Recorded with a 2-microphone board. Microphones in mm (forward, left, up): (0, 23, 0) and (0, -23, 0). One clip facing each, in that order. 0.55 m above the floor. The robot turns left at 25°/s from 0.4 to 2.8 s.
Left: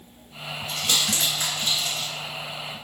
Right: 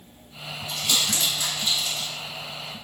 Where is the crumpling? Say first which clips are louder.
Even; 80° left, 1.1 m; by 2.1 s 45° left (ahead or behind), 1.1 m.